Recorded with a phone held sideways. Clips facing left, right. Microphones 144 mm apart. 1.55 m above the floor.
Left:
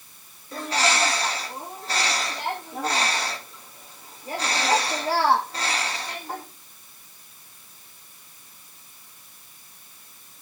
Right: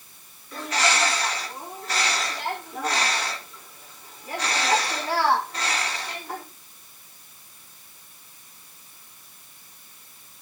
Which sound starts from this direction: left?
A bird, at 0.5 s.